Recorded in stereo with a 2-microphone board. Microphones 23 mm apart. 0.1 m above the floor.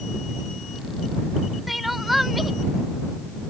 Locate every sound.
1.7 s crying: 5° right (ahead or behind)